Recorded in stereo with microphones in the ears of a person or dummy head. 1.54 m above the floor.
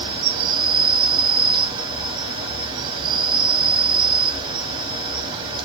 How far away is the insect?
About 0.7 m.